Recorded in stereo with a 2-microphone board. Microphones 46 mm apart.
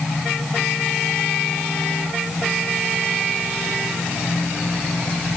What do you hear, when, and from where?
Only background noise.